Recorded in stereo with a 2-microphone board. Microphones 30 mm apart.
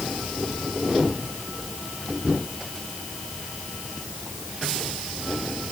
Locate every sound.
Only background noise.